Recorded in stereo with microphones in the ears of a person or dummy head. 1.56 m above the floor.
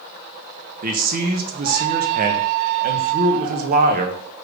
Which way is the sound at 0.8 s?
50° right (ahead or behind).